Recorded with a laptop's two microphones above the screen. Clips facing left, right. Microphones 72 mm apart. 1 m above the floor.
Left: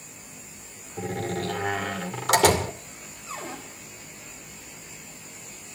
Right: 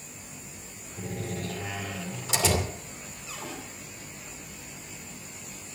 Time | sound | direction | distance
1.0 | a door slam | 70° left (ahead or behind) | 2.5 m
3.3 | a cupboard door | 35° left (ahead or behind) | 5.5 m